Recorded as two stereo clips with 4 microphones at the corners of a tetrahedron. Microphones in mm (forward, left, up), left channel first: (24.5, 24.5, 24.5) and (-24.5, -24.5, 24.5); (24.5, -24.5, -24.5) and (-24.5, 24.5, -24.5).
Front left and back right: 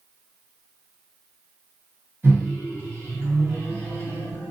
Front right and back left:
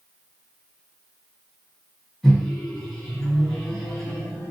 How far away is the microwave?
About 1.3 m.